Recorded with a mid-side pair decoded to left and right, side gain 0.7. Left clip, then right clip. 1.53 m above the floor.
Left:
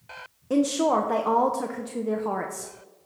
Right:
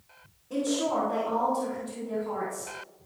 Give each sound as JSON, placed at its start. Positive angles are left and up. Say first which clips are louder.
{"t": 0.5, "sound": "a woman speaking", "louder": "left 6 dB", "azimuth_deg": 55, "distance_m": 1.1}